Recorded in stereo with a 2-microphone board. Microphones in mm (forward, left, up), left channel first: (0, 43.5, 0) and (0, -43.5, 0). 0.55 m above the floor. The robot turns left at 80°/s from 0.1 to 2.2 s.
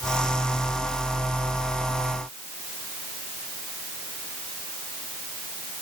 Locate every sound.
Only background noise.